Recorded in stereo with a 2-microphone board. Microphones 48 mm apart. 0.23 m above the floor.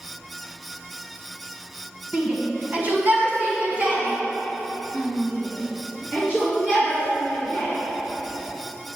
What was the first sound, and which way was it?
A shout, 40° right (ahead or behind).